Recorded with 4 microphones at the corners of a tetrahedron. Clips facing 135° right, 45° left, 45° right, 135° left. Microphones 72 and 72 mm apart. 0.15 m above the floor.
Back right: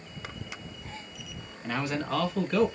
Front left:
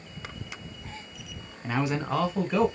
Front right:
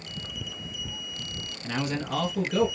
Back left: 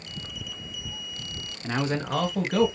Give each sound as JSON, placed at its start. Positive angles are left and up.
{"t": 1.6, "sound": "a man speaking", "azimuth_deg": 105, "distance_m": 1.1}